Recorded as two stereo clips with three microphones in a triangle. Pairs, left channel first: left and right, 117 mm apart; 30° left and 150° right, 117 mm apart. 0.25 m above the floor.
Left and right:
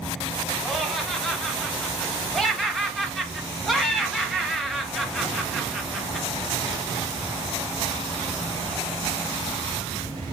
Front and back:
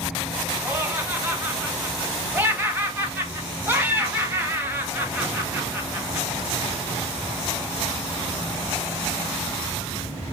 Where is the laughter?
Straight behind, 0.9 m.